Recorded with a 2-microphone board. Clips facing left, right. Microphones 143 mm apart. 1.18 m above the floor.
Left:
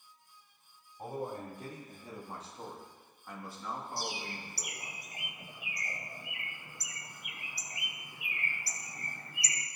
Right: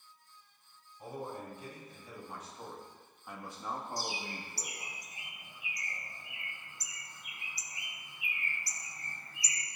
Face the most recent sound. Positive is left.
turn(degrees=65)  # may be behind; listen again after turning